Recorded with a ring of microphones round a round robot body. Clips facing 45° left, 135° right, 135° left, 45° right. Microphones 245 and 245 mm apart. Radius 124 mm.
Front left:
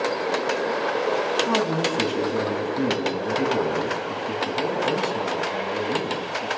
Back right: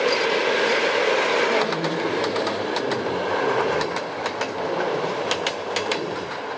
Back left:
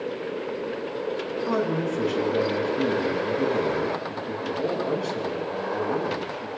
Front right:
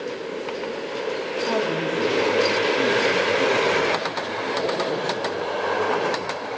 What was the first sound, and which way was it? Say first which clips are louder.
A man speaking: even, even; 60° left.